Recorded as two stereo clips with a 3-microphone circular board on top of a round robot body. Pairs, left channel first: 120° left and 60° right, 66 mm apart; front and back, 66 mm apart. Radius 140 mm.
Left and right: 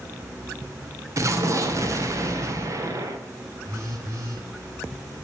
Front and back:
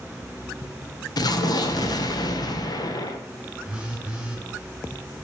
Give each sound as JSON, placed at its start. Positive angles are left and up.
{"t": 1.2, "sound": "an explosion", "azimuth_deg": -20, "distance_m": 1.3}
{"t": 3.6, "sound": "a phone buzzing", "azimuth_deg": -105, "distance_m": 4.5}